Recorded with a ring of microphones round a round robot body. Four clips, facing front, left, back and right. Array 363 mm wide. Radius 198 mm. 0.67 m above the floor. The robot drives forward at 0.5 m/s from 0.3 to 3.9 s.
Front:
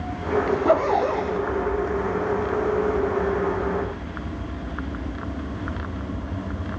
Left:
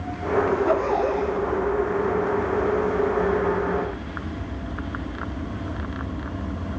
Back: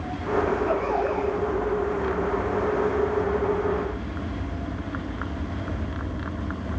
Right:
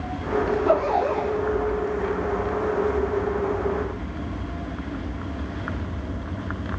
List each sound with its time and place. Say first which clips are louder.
0.5 s a zipper: right 3 dB, front 4 dB; 5° right, 3 m